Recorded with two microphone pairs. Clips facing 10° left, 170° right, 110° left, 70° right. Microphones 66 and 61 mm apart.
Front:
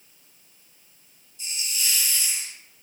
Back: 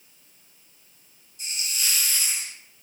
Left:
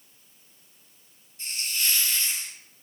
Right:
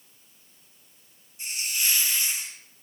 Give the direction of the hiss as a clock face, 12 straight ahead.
5 o'clock.